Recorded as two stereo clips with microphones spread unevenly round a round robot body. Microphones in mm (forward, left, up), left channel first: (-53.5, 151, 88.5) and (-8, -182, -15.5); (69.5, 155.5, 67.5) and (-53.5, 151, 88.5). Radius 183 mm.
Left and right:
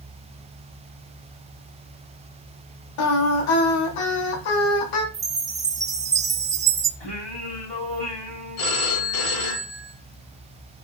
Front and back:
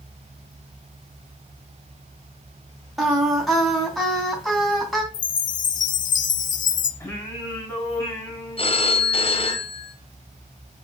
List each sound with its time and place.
3.0 s singing: 90° left, 2.5 m
5.1 s a chime: 5° right, 0.6 m
7.0 s singing: 70° left, 4.5 m
8.6 s a phone ringing: 40° left, 1.7 m